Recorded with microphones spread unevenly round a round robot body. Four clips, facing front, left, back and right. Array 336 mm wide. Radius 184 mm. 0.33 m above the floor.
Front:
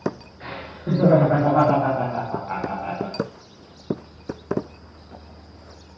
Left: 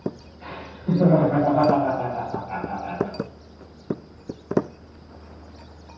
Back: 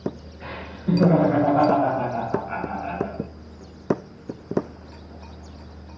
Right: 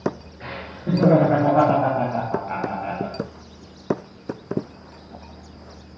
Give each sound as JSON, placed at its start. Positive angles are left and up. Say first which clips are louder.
{"t": 0.4, "sound": "laughter", "louder": "right 1 dB, back 2 dB", "azimuth_deg": -45, "distance_m": 6.0}